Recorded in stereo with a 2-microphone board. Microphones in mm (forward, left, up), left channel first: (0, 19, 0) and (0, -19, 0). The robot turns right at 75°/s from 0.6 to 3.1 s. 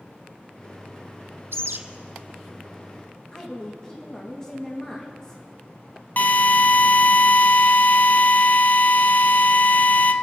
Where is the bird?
75° right (ahead or behind), 0.9 m; by 1.8 s 70° right (ahead or behind), 0.9 m.